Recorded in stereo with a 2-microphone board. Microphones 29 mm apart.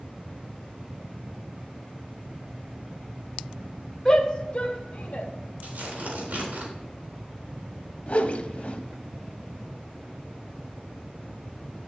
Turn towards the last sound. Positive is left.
turn(degrees=50)  # may be behind; listen again after turning